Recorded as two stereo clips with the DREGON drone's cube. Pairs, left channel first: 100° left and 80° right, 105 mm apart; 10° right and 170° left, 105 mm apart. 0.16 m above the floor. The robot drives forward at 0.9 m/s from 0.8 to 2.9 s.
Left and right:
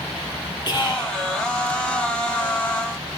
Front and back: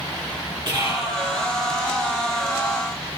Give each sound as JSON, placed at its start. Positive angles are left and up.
{"t": 0.7, "sound": "whispering", "azimuth_deg": 135, "distance_m": 3.5}